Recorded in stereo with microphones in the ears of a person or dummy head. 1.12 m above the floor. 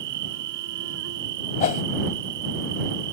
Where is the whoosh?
35° left (ahead or behind).